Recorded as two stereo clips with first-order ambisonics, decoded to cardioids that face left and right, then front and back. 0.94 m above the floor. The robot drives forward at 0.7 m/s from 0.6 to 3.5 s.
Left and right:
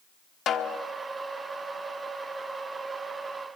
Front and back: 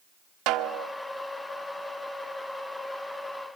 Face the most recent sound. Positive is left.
turn(degrees=165)